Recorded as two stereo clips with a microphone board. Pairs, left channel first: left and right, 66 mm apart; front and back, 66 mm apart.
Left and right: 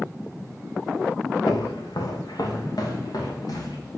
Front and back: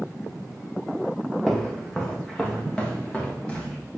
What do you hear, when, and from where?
1.5 s footsteps: 85° left, 1.1 m; by 3.8 s 75° left, 3 m